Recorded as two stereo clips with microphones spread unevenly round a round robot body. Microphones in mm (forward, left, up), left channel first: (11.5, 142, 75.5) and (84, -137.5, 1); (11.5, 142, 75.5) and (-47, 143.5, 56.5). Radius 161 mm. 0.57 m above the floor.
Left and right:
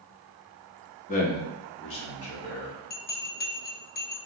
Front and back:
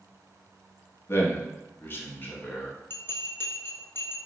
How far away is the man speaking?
About 0.8 m.